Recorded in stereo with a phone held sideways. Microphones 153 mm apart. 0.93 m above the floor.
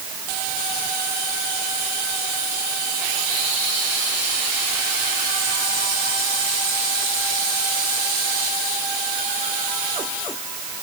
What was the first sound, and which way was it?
Only background noise.